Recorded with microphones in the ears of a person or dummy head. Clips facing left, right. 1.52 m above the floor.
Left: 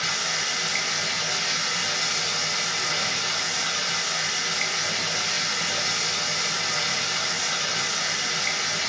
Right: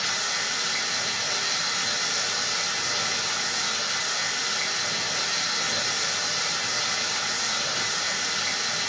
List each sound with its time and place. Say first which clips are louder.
0.0 s running water: left 1 dB; 60° left (ahead or behind), 1.3 m